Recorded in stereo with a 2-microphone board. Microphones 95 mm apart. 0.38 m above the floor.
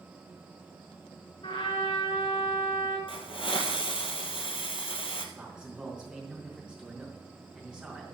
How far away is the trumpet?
About 5.5 m.